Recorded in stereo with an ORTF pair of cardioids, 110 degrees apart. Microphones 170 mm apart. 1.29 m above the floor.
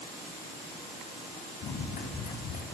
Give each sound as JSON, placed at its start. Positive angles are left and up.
{"t": 1.6, "sound": "running footsteps", "azimuth_deg": 60, "distance_m": 7.5}